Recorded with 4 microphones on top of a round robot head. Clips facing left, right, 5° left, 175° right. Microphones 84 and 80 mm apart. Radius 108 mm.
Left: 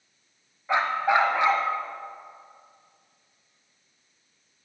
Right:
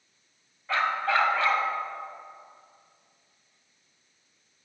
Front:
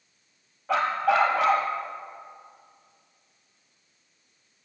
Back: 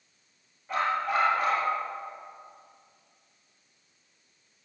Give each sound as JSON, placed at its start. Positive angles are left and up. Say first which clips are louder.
{"t": 0.7, "sound": "a dog barking", "louder": "left 3 dB, front 4 dB", "azimuth_deg": 20, "distance_m": 1.4}